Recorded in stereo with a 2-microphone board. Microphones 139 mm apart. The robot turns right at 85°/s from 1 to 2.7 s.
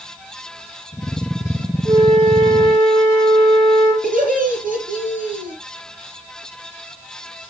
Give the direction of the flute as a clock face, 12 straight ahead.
5 o'clock.